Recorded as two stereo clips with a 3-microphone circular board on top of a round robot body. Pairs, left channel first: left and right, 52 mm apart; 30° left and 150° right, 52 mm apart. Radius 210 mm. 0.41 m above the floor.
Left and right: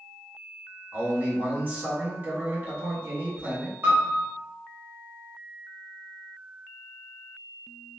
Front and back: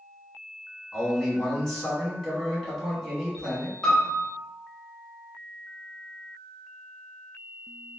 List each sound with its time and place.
0.9 s a man speaking: 45° right, 2.0 m
3.8 s a piano: 40° right, 1.8 m